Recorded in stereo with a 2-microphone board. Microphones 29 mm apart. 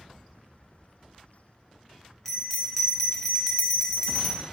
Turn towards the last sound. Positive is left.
turn(degrees=5)  # may be behind; listen again after turning